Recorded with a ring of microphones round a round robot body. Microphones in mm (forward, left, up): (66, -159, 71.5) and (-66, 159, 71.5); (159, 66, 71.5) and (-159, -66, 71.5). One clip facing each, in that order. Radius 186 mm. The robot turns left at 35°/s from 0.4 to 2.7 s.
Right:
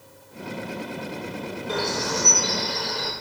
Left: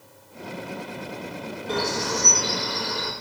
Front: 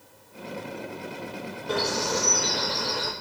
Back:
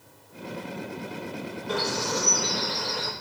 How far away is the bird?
About 4.5 m.